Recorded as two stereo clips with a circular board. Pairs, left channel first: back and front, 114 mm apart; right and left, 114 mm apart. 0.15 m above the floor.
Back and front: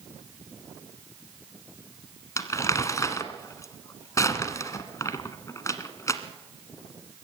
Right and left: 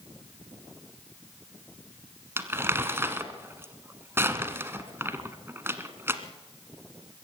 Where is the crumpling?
145° left, 1.4 m.